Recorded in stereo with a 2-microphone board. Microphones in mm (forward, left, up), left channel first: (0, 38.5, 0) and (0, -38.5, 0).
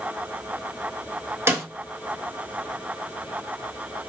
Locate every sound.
1.5 s a snare drum: 30° right (ahead or behind), 0.9 m